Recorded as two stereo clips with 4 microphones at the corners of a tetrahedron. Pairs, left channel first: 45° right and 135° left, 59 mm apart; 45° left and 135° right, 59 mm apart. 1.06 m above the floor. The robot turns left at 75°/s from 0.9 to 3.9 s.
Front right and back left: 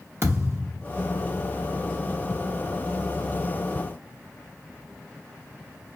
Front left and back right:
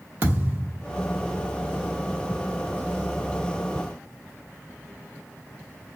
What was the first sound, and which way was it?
A thud, 175° left.